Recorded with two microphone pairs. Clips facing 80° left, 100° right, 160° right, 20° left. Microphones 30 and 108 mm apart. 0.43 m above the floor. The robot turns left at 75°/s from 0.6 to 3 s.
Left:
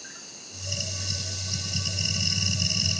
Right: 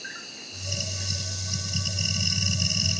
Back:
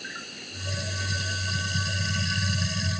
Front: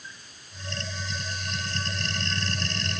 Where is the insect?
150° right; by 3.0 s 30° left.